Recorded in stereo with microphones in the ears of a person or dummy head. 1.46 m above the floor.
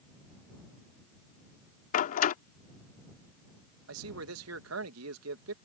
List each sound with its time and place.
1.9 s a door slam: 50° left (ahead or behind)
3.9 s a man speaking: 75° right (ahead or behind)